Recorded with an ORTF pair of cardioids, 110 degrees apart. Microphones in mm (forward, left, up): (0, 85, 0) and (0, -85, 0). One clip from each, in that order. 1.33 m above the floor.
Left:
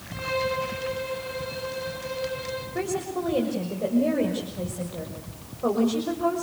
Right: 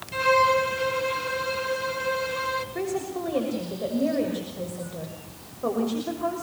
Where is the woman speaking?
10° left, 6 m.